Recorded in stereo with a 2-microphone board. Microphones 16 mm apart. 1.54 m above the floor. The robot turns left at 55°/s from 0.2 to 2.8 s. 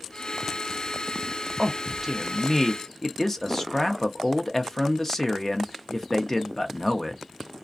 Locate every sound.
1.6 s a man speaking: 140° right, 0.6 m; by 7.2 s 155° left, 0.6 m